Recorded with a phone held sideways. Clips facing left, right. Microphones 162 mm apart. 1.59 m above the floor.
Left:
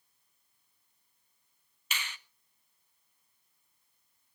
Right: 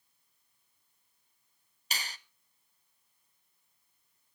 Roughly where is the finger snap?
Right.